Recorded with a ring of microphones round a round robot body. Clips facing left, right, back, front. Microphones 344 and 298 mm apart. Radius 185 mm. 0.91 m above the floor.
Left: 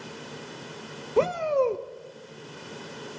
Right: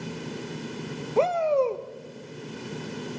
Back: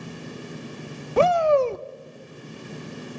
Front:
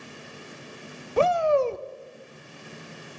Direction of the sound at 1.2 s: 160° left.